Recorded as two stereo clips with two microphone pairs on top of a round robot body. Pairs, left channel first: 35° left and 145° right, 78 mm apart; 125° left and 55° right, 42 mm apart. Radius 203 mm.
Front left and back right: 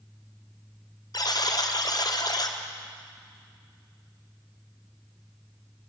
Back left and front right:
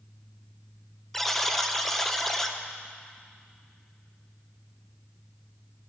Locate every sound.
1.1 s a buzzer: 55° left, 1.2 m